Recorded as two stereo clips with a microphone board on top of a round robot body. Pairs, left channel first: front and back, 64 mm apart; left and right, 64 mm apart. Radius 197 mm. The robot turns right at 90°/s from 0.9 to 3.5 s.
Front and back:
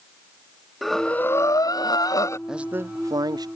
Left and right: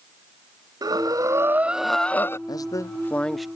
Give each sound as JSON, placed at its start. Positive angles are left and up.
{"t": 0.8, "sound": "breathing", "azimuth_deg": -90}
{"t": 2.5, "sound": "a man speaking", "azimuth_deg": 95}